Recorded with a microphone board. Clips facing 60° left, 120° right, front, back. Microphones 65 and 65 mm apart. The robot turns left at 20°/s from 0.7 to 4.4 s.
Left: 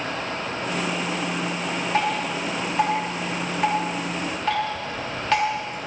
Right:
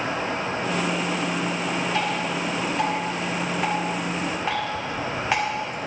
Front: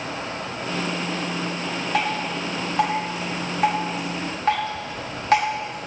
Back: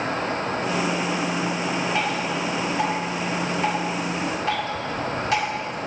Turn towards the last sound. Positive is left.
turn(degrees=-45)